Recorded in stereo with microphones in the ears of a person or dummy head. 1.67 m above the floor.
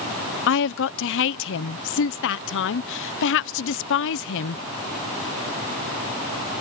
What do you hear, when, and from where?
0.5 s a woman speaking: 75° left (ahead or behind)